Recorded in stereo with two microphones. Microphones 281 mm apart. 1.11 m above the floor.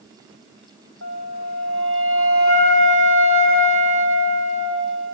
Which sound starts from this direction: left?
A flute, at 1.0 s.